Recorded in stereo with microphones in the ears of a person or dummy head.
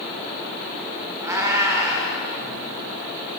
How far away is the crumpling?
I don't hear crumpling.